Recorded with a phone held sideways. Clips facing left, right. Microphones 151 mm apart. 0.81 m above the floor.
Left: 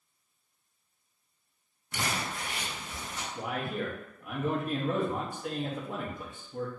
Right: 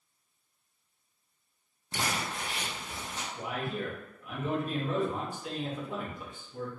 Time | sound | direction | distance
1.9 | crumpling | 30° right (ahead or behind) | 0.7 m
3.4 | a man speaking | 55° left (ahead or behind) | 0.7 m